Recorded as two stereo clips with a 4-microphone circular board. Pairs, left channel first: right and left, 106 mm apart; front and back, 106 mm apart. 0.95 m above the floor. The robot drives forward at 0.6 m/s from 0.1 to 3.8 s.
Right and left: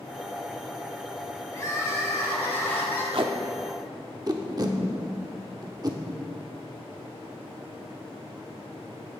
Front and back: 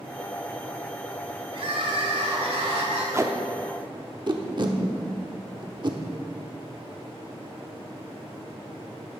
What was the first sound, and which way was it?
Crying, 150° right.